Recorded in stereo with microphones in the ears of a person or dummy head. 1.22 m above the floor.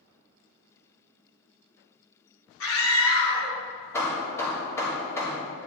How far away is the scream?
About 2 m.